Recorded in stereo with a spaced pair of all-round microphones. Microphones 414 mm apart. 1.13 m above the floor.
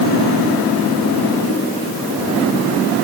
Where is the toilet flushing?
I don't hear a toilet flushing.